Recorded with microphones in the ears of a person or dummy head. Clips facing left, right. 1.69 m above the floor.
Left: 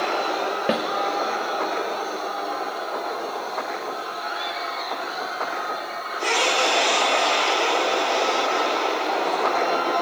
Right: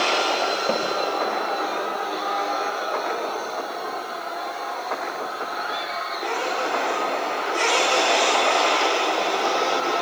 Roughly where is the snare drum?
Centre.